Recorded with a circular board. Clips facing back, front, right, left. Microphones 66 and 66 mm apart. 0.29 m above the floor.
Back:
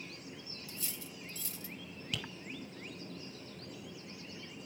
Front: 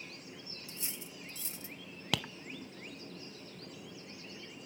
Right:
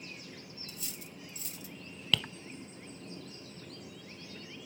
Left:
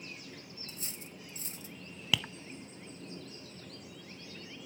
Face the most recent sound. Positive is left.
turn(degrees=10)